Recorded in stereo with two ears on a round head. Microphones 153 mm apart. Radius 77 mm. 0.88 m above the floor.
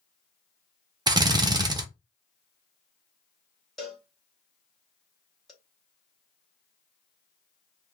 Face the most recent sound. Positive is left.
turn(degrees=0)  # may be behind; listen again after turning